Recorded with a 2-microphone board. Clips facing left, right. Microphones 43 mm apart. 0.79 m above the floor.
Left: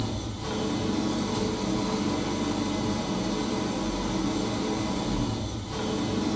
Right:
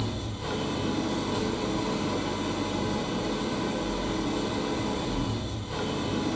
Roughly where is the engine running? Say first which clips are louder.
Left 1 dB; centre.